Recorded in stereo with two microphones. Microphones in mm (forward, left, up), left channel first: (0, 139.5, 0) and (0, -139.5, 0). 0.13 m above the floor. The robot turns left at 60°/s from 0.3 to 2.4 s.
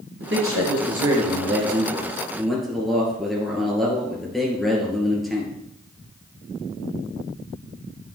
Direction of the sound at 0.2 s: 55° right.